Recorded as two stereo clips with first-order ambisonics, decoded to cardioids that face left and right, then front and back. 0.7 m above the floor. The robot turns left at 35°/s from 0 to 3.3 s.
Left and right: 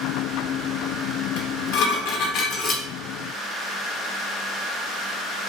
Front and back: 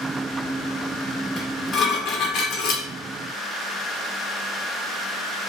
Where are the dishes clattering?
75° left, 0.7 m; by 2.8 s 25° left, 0.7 m.